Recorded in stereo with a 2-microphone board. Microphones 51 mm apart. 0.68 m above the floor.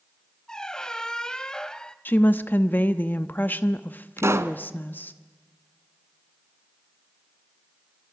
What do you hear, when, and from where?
0.5 s a squeak: 15° left (ahead or behind), 0.8 m
2.0 s a woman speaking: 40° left (ahead or behind), 0.8 m
4.2 s a pop: 60° right (ahead or behind), 1.1 m